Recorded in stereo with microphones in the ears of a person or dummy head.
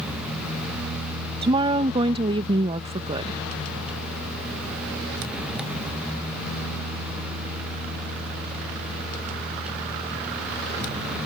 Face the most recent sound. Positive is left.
turn(degrees=-30)  # may be behind; listen again after turning